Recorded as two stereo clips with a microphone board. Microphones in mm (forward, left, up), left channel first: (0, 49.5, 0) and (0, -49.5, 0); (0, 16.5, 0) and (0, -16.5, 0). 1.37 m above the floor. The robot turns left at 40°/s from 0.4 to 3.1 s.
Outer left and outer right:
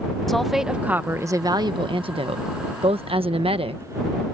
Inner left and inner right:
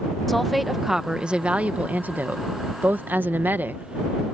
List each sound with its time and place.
0.3 s a woman speaking: straight ahead; by 4.2 s 105° right